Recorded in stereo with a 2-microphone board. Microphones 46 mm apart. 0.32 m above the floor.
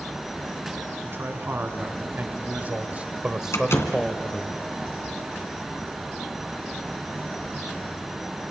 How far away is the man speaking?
About 4 m.